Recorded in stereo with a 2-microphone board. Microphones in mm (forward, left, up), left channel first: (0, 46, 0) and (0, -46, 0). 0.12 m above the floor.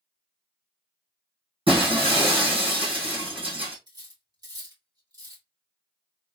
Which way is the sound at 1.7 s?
75° right (ahead or behind).